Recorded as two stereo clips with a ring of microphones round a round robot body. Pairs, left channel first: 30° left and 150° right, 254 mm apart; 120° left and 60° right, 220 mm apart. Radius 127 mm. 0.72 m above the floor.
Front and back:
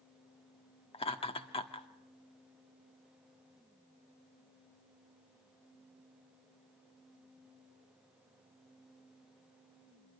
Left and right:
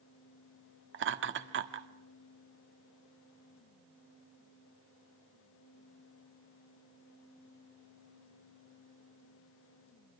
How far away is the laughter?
About 1.4 m.